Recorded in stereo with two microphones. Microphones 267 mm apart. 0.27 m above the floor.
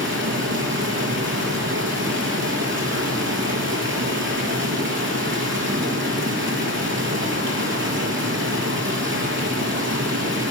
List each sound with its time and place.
0.0 s running water: 45° right (ahead or behind), 5 m